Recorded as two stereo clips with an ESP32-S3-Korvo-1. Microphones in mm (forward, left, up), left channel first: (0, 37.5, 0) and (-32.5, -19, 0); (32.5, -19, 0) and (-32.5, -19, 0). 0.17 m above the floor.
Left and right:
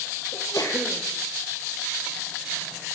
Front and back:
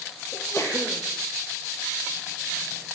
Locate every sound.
0.3 s a sneeze: 45° left, 5 m